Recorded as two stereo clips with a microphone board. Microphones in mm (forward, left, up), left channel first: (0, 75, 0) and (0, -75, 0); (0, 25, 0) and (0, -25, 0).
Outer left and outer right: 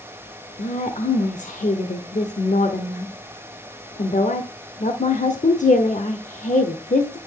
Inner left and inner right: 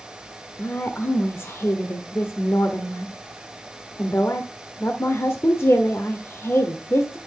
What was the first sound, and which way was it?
A woman speaking, 55° left (ahead or behind).